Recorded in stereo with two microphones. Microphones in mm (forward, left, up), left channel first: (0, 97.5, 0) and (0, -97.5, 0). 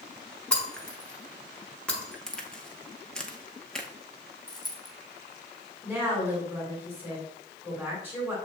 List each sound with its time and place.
0.5 s breaking glass: 5° left (ahead or behind), 0.9 m
2.3 s a crack: 5° left (ahead or behind), 0.6 m
4.5 s a dropped coin: 20° left (ahead or behind), 1.2 m
5.8 s a woman speaking: 10° right (ahead or behind), 1.8 m